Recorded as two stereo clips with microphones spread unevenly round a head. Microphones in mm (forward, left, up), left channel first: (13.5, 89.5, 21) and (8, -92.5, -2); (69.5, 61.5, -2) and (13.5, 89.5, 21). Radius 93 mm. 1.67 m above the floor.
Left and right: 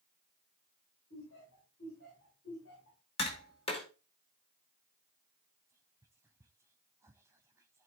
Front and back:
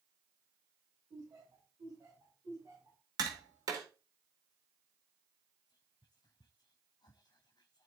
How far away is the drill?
I don't hear a drill.